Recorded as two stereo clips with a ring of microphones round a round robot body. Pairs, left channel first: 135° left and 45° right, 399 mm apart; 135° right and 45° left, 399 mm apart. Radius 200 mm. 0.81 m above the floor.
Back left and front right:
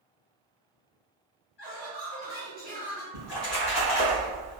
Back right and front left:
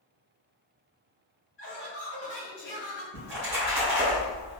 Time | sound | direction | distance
1.6 | laughter | 165° left | 1.8 m
3.1 | a splash | 95° left | 1.9 m